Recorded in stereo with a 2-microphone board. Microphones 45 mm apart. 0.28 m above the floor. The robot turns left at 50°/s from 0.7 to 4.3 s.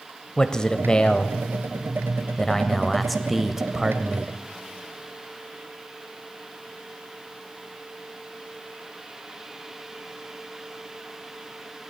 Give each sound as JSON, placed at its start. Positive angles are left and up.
{"t": 0.4, "sound": "a man speaking", "side_deg": 15, "distance_m": 1.1}